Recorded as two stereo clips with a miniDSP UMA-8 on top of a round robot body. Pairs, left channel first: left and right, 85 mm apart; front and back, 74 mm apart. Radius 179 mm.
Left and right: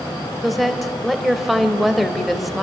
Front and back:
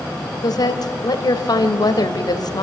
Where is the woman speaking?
Straight ahead, 2.5 m.